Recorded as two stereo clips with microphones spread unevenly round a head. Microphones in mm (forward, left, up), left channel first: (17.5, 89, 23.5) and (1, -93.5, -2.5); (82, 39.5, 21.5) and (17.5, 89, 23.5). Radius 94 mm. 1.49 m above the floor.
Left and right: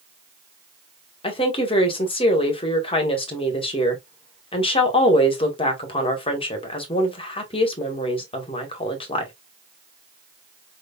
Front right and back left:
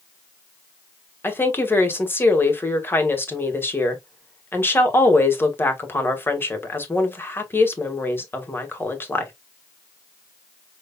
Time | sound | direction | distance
1.2 | a woman speaking | 25° left | 1.9 m